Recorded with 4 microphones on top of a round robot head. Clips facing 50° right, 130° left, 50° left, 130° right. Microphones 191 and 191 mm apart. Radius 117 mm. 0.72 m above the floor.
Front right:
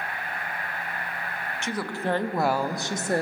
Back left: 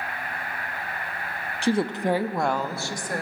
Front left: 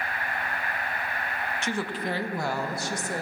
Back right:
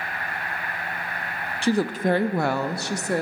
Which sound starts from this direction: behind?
A woman speaking, at 1.6 s.